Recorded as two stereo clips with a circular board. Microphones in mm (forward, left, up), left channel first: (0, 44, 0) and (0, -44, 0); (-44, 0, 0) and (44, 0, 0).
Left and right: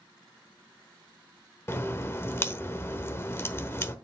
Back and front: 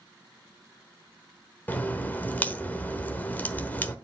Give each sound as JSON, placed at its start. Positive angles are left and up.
{"t": 1.7, "sound": "a crack", "azimuth_deg": 125, "distance_m": 0.9}